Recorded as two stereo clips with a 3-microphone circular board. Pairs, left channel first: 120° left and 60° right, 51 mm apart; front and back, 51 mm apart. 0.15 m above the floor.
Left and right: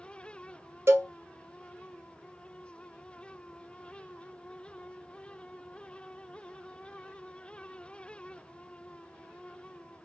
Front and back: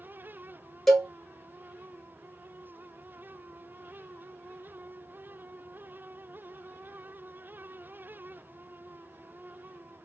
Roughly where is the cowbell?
Right.